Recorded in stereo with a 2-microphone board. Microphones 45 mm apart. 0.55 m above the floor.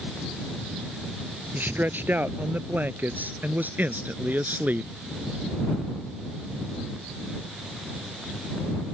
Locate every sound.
1.5 s a man speaking: 50° right (ahead or behind); by 4.9 s 45° right (ahead or behind)